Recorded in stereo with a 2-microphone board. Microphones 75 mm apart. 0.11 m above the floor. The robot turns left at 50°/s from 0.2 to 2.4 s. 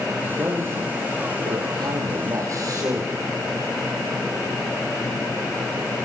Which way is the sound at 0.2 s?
20° right.